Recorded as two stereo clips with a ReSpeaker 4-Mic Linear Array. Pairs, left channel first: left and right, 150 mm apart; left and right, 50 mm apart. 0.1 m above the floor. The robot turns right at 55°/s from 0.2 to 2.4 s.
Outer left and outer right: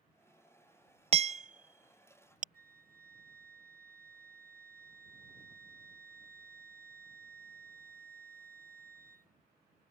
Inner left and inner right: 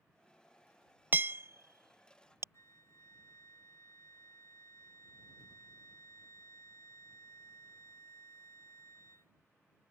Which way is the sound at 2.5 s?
65° left (ahead or behind).